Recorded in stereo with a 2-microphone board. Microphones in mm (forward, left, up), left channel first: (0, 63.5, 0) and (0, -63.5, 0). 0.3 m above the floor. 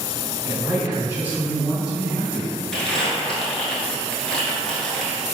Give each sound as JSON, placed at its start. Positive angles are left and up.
{"t": 0.5, "sound": "a man speaking", "side_deg": -20, "distance_m": 1.1}
{"t": 2.7, "sound": "crumpling", "side_deg": 5, "distance_m": 0.8}